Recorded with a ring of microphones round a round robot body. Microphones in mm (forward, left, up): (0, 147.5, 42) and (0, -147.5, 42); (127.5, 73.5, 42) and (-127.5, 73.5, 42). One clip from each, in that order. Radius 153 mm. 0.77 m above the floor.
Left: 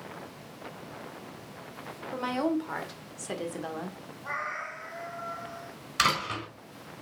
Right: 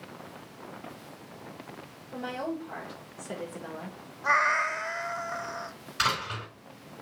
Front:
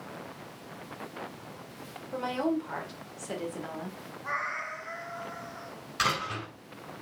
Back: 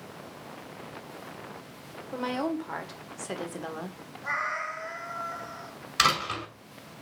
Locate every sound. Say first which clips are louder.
2.1 s a woman speaking: left 5 dB, even; 120° left, 2.5 m; by 4.0 s 145° left, 1.7 m
4.2 s a cat meowing: right 10 dB, back 3 dB; 110° right, 0.7 m
6.0 s a door slam: left 2 dB, back 4 dB; 150° left, 5 m